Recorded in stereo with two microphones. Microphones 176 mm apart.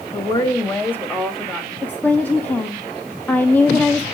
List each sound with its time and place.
0.1 s a woman speaking: 25° left (ahead or behind), 1.3 m; by 1.7 s centre (ahead or behind), 1.8 m
1.8 s a woman speaking: 10° left (ahead or behind), 0.9 m